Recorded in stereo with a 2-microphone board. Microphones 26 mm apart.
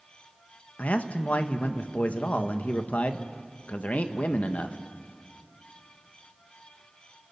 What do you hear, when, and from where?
0.8 s a man speaking: 70° left (ahead or behind), 1.3 m